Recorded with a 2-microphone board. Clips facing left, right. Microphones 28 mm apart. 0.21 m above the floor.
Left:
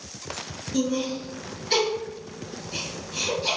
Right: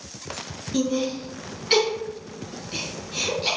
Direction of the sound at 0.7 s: 35° right (ahead or behind).